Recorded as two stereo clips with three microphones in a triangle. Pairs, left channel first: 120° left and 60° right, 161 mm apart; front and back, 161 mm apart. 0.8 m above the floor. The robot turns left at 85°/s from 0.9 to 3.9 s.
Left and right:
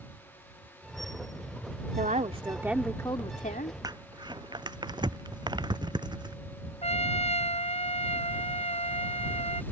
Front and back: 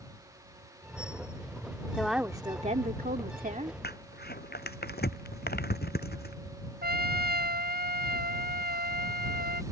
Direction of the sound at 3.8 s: 5° left.